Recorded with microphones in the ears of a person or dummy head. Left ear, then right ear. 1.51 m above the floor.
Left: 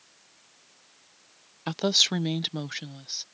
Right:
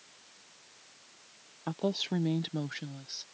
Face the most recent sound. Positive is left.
turn(degrees=15)  # may be behind; listen again after turning